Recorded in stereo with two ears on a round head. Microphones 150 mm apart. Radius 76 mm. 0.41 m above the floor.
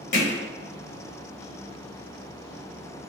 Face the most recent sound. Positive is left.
turn(degrees=45)  # may be behind; listen again after turning